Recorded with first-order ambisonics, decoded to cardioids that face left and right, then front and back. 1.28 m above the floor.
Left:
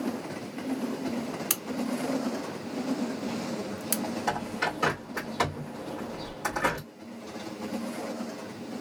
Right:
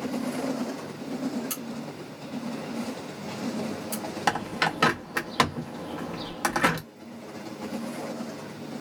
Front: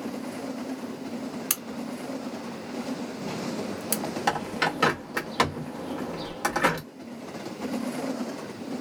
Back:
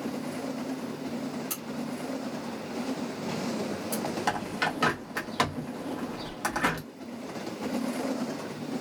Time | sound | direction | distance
1.5 | a crack | 40° left | 0.6 m
4.3 | a bird | 80° right | 0.8 m